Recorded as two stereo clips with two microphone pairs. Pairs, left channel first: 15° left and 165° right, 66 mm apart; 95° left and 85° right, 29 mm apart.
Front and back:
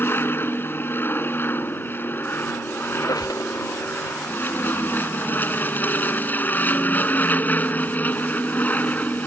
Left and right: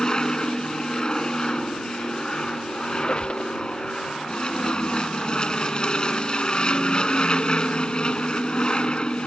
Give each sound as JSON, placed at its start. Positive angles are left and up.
{"t": 0.0, "sound": "an aircraft", "azimuth_deg": 45}
{"t": 2.9, "sound": "a squeak", "azimuth_deg": 35}